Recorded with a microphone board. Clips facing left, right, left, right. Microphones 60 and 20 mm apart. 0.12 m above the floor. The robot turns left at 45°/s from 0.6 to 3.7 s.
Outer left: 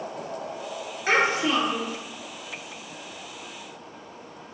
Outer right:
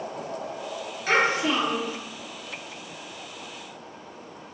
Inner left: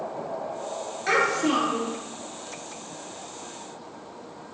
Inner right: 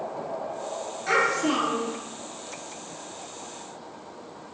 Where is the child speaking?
35° left, 1.1 m; by 2.0 s 5° right, 1.1 m.